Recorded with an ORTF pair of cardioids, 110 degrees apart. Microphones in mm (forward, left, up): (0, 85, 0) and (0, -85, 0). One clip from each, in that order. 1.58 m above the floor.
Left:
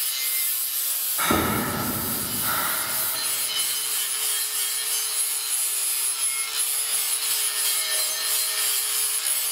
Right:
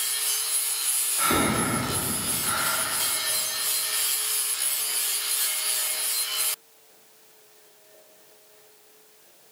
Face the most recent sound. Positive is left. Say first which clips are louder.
# left 1 dB
turn(degrees=20)